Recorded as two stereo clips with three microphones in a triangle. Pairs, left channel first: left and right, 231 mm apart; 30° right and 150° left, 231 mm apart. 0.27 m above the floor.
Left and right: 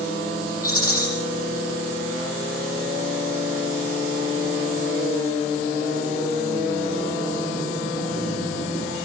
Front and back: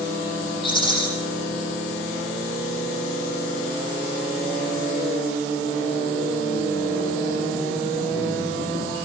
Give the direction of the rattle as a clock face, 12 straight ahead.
11 o'clock.